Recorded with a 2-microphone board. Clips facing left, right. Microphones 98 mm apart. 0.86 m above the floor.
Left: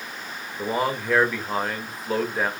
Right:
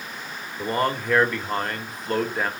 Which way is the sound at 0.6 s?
5° left (ahead or behind).